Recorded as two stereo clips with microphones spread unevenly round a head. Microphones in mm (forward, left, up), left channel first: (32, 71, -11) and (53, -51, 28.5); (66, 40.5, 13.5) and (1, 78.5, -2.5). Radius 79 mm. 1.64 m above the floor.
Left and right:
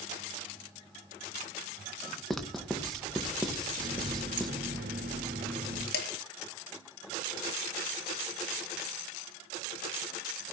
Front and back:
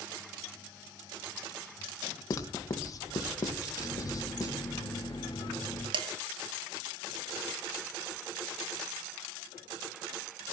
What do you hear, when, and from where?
2.3 s writing: 10° left, 1.9 m
3.8 s a running tap: 90° right, 3.5 m
5.9 s dishes clattering: 135° left, 1.7 m